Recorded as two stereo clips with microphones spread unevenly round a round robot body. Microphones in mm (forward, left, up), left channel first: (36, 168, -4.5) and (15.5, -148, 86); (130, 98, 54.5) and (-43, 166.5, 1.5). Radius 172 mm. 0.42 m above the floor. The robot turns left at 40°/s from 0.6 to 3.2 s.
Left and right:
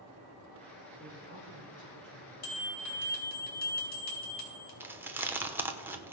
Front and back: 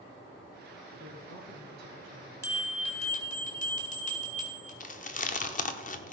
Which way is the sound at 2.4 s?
60° left.